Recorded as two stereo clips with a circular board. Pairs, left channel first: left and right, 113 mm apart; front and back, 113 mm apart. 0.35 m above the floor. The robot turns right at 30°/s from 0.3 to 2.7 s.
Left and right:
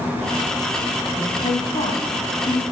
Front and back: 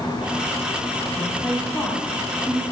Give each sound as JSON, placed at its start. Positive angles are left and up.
{"t": 1.2, "sound": "a woman speaking", "azimuth_deg": 65, "distance_m": 2.5}